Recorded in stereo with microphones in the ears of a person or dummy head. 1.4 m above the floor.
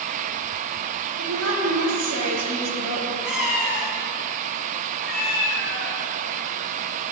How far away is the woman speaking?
About 2.5 m.